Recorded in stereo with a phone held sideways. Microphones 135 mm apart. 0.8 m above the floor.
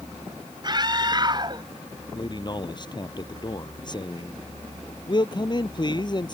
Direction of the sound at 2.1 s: 35° left (ahead or behind).